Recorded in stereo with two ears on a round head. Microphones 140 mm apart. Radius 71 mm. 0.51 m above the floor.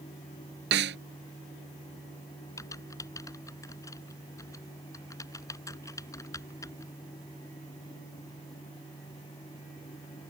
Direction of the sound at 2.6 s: 20° left (ahead or behind).